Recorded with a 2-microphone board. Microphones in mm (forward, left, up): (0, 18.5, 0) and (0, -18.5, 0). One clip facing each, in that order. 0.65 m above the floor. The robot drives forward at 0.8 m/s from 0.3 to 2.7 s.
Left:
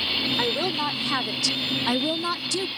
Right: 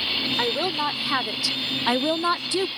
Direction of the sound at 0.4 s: 5° right (ahead or behind).